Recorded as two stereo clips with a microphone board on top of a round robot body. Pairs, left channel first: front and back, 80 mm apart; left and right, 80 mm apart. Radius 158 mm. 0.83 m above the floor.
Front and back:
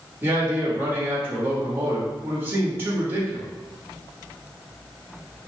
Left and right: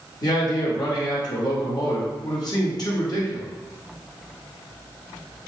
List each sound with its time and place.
0.2 s a man speaking: 120° left, 1.6 m